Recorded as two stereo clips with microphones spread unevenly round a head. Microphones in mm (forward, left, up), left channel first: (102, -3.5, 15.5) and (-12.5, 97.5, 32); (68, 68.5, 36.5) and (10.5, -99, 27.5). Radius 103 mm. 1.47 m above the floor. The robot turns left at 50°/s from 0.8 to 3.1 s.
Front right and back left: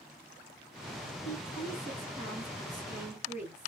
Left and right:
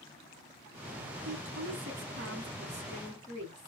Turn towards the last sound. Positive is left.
turn(degrees=-165)